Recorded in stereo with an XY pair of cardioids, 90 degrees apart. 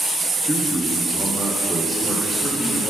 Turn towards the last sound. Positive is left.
turn(degrees=0)